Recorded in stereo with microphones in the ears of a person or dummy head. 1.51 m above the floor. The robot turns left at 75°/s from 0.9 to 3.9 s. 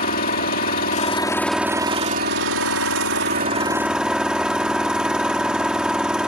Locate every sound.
0.0 s an engine running: 50° left; by 6.3 s 175° right